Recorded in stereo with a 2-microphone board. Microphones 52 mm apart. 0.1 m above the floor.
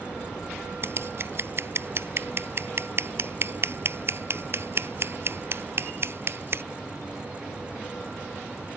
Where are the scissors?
50° right (ahead or behind).